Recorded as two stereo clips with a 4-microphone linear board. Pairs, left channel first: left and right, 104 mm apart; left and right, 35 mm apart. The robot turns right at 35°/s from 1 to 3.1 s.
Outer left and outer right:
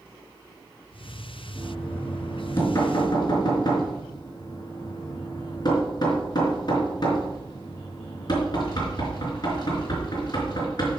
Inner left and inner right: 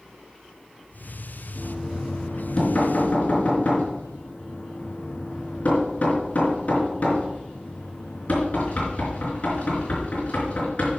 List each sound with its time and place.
1.6 s knocking: 10° right (ahead or behind), 4.5 m; by 11.0 s 40° left (ahead or behind), 4.5 m